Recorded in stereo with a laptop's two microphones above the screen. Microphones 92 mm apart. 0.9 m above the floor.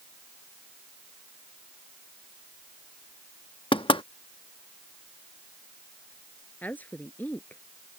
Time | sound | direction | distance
3.7 | knocking | 75° left (ahead or behind) | ?
6.6 | a woman speaking | 20° left (ahead or behind) | ?